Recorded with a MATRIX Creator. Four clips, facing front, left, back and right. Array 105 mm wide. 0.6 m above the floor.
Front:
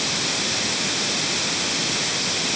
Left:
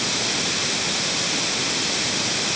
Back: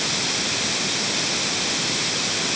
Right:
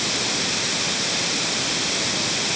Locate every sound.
Only background noise.